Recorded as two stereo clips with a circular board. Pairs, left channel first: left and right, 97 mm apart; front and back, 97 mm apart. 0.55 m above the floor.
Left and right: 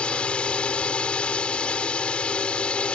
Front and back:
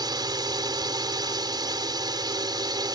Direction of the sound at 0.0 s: 165° left.